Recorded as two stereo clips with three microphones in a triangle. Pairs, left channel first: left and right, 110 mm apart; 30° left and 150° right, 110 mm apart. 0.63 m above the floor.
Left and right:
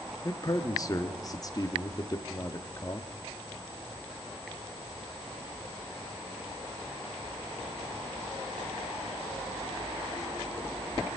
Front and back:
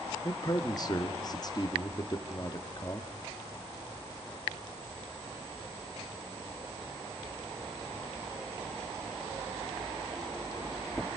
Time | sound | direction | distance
0.2 | a man speaking | 60° left | 0.9 m